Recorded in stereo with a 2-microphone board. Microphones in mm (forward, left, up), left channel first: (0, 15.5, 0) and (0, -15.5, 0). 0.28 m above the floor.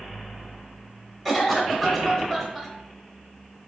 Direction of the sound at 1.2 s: 10° left (ahead or behind).